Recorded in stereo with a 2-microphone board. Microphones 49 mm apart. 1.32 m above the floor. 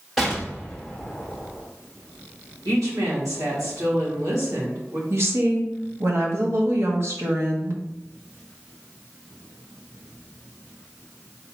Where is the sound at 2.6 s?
80° right, 2 m.